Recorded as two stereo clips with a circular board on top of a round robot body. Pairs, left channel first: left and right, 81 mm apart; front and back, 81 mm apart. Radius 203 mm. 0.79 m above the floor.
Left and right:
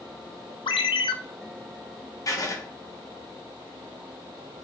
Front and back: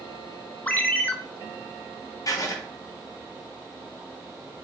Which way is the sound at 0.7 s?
70° left.